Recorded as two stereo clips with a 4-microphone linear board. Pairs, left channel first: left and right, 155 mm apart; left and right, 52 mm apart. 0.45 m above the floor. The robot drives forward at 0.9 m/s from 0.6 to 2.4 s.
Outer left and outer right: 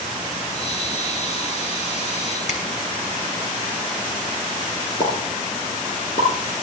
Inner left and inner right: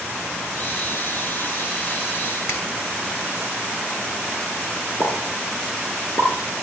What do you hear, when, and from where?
2.5 s a finger snap: 55° left (ahead or behind), 2.5 m
5.0 s a pop: 65° left (ahead or behind), 3.5 m